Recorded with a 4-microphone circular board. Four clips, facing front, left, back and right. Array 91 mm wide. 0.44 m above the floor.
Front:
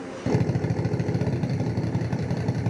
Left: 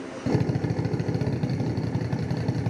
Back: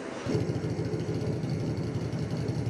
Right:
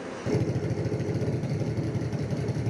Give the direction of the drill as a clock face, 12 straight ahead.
11 o'clock.